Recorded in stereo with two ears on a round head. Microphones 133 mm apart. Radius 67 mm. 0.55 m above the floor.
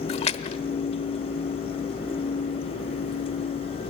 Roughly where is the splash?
Left.